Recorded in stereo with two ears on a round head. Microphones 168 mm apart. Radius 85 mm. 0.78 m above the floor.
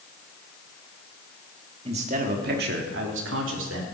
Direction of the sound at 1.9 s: 30° right (ahead or behind).